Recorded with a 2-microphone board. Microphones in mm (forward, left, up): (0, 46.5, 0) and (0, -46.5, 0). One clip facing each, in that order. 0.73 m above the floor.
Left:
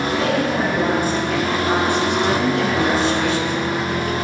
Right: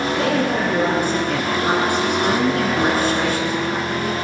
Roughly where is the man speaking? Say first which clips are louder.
Even; right.